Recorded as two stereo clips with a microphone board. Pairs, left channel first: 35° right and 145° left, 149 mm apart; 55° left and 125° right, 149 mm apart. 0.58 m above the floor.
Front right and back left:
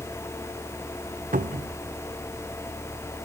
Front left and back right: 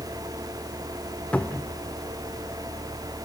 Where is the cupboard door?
135° left, 0.6 m.